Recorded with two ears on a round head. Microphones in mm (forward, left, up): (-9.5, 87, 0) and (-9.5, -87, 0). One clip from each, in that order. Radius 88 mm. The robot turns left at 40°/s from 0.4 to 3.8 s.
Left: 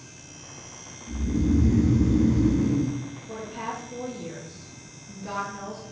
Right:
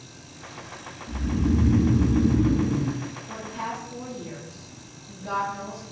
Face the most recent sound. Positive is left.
turn(degrees=15)  # may be behind; listen again after turning